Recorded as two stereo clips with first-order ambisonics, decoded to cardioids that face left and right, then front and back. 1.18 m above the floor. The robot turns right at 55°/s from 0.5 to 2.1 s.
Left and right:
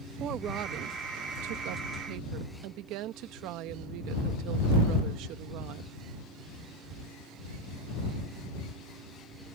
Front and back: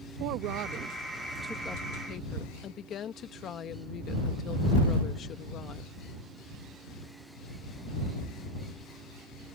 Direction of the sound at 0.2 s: 145° right.